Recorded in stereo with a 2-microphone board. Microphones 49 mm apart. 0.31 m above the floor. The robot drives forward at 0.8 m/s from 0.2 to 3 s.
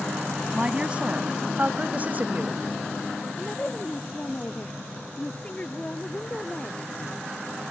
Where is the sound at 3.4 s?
25° left (ahead or behind).